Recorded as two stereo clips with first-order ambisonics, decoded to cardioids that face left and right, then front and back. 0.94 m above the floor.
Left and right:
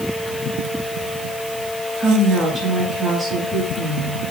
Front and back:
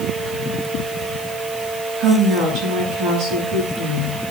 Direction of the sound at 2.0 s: 165° right.